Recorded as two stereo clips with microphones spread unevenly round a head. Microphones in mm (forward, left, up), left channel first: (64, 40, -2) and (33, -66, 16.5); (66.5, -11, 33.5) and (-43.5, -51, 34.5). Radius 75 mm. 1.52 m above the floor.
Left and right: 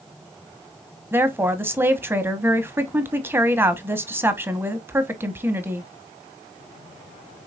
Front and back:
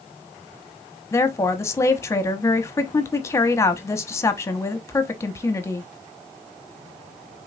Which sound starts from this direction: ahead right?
A woman speaking, at 1.1 s.